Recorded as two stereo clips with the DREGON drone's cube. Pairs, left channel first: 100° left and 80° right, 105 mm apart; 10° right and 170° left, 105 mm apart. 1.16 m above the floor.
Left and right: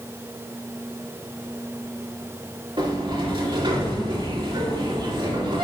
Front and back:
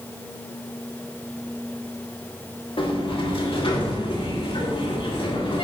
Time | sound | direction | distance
2.8 | a sliding door | 40° right | 2.5 m